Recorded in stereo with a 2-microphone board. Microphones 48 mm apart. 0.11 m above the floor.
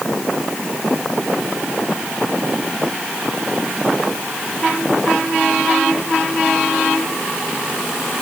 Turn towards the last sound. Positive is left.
No sound to turn to.